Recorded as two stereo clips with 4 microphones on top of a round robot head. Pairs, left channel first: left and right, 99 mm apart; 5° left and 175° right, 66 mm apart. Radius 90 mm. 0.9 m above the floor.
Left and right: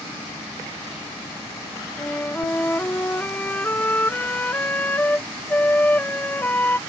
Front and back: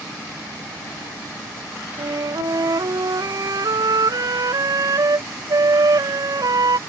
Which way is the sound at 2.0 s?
165° left.